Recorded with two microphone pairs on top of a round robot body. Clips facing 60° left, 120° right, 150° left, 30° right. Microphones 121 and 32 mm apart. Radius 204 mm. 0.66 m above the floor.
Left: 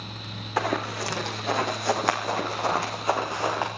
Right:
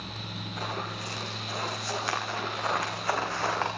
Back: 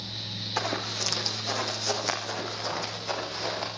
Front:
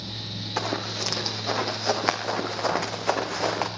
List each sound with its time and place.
0.6 s running footsteps: 55° left, 3.5 m; by 3.7 s 20° right, 4 m